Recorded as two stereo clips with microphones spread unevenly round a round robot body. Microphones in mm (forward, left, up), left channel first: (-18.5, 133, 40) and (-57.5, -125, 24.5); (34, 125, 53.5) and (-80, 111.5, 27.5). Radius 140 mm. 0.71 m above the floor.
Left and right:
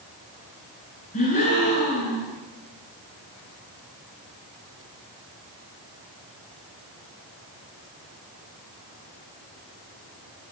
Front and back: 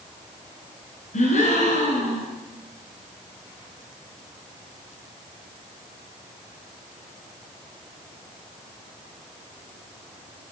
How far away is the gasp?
About 7.5 m.